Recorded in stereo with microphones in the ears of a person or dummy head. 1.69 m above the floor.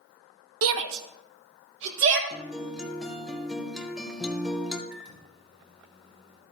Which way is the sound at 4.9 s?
25° right (ahead or behind).